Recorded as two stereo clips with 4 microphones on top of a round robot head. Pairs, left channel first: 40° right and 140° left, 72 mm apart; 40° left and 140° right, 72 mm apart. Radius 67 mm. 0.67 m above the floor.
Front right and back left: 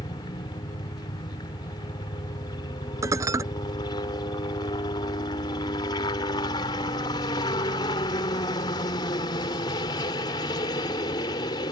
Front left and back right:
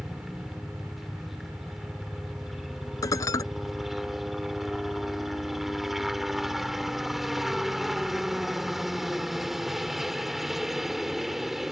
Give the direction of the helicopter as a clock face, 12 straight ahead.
2 o'clock.